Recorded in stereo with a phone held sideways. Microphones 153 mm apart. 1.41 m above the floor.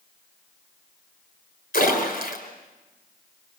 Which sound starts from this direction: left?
A splash, at 1.7 s.